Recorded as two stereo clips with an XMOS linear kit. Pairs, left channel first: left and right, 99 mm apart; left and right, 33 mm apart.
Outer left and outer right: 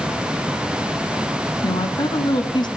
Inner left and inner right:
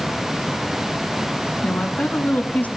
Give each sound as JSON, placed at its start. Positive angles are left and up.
{"t": 1.6, "sound": "a woman speaking", "side_deg": 50, "distance_m": 2.0}